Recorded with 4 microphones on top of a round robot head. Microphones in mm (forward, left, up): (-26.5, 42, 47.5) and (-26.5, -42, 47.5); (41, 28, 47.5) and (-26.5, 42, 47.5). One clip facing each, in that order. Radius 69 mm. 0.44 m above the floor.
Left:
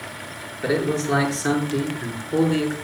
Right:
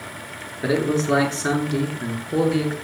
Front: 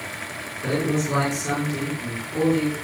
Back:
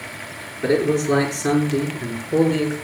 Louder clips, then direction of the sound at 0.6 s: Right 1 dB, back 6 dB; 145° right.